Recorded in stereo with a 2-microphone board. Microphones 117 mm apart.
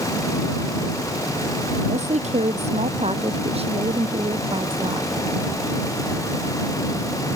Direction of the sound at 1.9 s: 75° right (ahead or behind).